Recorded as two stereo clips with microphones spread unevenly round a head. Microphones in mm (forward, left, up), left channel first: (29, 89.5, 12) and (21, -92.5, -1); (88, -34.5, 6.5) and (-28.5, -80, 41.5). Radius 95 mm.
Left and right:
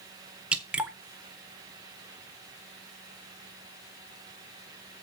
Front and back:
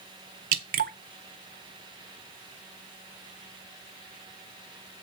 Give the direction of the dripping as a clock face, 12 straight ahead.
6 o'clock.